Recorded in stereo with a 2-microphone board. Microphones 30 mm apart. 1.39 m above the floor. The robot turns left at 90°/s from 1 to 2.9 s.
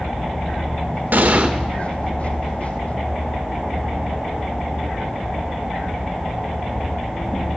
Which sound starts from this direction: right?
An explosion, at 1.1 s.